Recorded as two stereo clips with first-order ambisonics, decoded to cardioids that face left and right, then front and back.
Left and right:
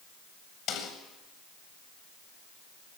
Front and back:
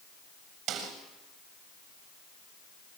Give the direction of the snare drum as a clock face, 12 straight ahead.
7 o'clock.